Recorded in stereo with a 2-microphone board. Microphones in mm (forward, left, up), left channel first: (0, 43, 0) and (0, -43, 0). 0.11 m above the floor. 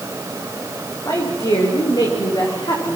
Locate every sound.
1.1 s a woman speaking: 45° left (ahead or behind), 8 m; by 3.0 s 55° left (ahead or behind), 9 m